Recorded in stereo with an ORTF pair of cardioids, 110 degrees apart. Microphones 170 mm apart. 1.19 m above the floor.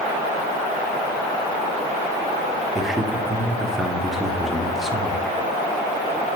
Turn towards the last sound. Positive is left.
turn(degrees=0)